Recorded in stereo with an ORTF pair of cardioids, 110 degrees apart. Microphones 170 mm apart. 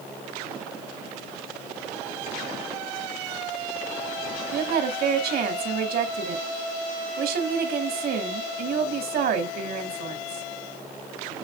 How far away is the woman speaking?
About 2.5 m.